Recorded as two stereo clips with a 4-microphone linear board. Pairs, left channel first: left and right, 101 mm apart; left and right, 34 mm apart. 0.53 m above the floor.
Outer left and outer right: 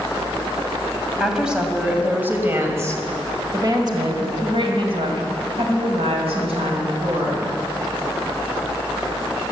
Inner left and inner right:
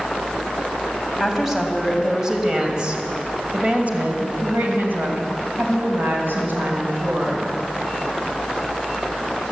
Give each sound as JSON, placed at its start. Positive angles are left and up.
{"t": 1.2, "sound": "a woman speaking", "side_deg": -5, "distance_m": 3.0}